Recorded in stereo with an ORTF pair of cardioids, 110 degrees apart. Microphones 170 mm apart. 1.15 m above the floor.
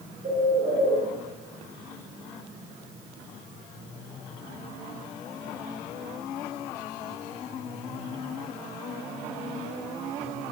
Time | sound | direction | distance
0.2 | a bird | 30° right | 5 m